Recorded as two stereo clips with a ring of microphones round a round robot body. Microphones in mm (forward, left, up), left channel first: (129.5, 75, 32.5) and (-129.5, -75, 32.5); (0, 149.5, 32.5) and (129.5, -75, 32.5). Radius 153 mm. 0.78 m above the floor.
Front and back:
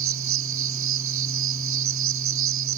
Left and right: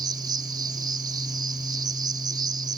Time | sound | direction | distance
0.0 | an insect | 135° right | ?